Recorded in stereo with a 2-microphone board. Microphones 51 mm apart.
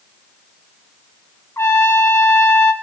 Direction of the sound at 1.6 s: 65° left (ahead or behind).